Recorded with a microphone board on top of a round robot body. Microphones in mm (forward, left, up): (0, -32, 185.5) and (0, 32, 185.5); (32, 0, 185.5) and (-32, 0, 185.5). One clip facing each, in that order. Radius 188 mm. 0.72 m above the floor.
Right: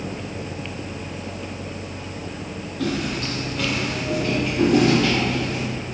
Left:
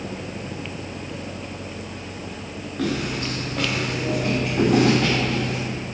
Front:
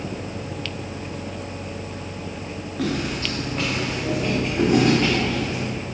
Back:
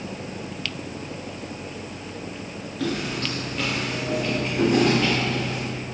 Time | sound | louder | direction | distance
2.8 | footsteps | even, front 2 dB | 50° left | 3 m